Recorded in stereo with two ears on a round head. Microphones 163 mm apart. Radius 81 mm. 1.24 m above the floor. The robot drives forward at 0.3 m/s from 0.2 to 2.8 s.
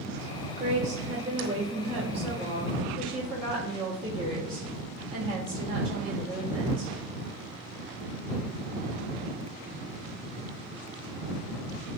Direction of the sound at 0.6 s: 45° right (ahead or behind).